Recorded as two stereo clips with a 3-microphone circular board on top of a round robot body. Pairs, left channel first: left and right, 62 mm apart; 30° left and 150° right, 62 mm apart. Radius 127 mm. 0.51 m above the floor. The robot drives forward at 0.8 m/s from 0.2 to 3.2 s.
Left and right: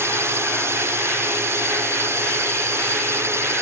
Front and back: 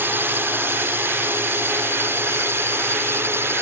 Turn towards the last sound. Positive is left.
turn(degrees=-115)